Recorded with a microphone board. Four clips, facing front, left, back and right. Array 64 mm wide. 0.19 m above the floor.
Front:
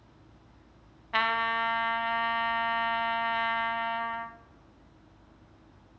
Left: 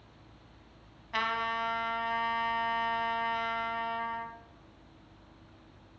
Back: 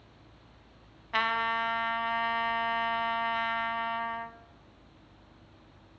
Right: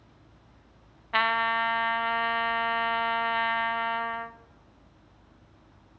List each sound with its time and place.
1.1 s a trumpet: 75° right, 1.3 m